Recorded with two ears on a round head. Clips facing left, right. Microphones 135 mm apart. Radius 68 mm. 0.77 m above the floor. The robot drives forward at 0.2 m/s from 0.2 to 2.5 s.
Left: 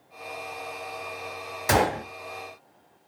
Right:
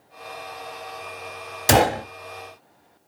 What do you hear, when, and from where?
1.7 s a gunshot: 35° right (ahead or behind), 1.0 m; by 2.0 s 30° right (ahead or behind), 1.0 m